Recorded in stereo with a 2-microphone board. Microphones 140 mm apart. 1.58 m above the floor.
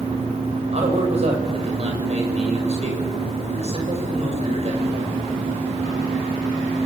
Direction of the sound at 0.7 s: 50° right (ahead or behind).